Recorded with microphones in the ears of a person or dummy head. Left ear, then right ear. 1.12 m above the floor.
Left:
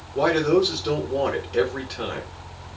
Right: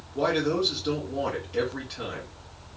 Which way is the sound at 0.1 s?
25° left (ahead or behind).